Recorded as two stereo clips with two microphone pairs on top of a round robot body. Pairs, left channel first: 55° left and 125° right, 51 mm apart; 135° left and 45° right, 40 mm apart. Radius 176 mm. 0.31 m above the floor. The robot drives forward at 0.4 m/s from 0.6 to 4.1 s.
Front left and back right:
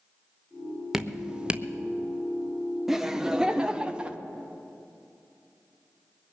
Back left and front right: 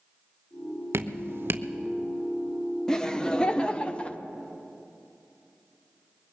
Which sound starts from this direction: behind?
Laughter, at 2.9 s.